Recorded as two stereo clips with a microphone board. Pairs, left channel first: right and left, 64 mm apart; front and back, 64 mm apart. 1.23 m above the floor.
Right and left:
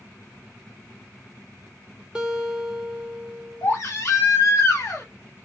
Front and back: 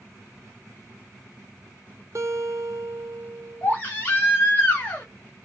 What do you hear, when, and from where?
2.1 s a guitar: 165° left, 0.6 m
3.6 s a baby crying: 55° right, 1.1 m